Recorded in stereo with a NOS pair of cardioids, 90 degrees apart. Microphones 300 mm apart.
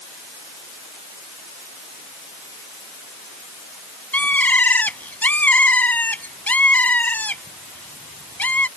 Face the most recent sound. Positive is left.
turn(degrees=5)